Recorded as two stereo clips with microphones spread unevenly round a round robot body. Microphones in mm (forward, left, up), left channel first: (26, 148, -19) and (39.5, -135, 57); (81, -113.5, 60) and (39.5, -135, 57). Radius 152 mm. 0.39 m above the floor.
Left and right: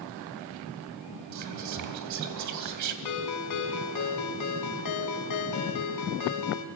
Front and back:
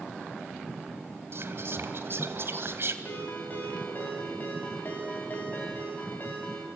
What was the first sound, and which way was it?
Whispering, 125° right.